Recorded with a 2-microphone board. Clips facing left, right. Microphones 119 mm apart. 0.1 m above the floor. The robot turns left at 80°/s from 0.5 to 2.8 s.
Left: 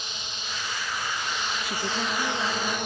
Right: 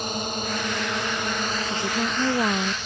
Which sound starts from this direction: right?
A drone, at 0.0 s.